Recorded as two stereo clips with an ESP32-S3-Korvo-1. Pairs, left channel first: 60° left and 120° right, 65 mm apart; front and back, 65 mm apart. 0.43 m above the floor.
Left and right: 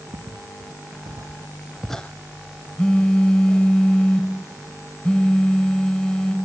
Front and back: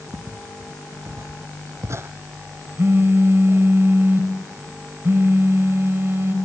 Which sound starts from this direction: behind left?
A phone buzzing, at 2.8 s.